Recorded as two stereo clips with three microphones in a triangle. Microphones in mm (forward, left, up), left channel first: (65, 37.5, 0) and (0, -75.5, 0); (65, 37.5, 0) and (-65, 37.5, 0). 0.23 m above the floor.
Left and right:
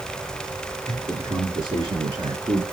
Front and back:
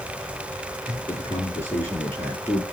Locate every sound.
0.9 s a man speaking: 65° right, 6 m; by 2.6 s 70° right, 5 m